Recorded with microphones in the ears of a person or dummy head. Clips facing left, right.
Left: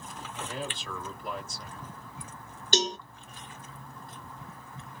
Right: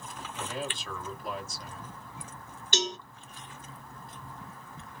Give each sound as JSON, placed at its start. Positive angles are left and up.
{"t": 0.3, "sound": "a man speaking", "side_deg": 0, "distance_m": 1.6}
{"t": 2.7, "sound": "a cowbell", "side_deg": 35, "distance_m": 0.5}